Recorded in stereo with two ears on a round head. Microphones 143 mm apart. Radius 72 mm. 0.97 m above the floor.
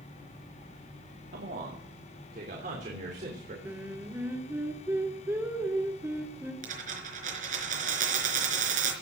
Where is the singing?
15° right (ahead or behind), 2.5 m.